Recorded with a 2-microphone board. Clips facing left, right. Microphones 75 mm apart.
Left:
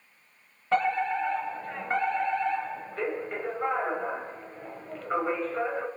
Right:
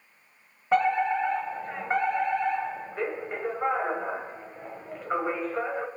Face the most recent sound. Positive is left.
turn(degrees=-15)  # may be behind; listen again after turning